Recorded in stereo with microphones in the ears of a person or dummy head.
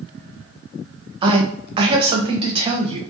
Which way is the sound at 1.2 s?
25° right (ahead or behind).